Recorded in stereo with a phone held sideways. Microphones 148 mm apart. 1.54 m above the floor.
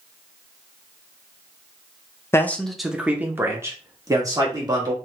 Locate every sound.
2.3 s a man speaking: 20° left (ahead or behind), 0.5 m; by 5.0 s 25° right (ahead or behind), 1.7 m